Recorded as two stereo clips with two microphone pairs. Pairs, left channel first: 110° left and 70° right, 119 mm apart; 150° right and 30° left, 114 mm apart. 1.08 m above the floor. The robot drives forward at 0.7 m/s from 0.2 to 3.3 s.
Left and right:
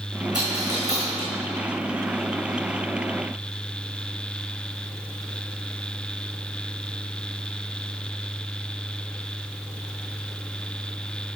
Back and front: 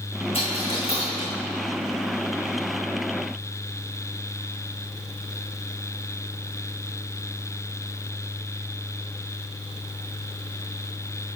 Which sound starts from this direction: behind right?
A dropped coin, at 0.3 s.